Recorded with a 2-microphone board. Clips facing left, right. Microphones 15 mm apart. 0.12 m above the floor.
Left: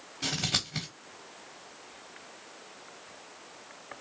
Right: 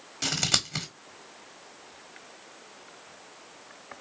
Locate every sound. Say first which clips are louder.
0.2 s scissors: right 4 dB; 80° right, 1.3 m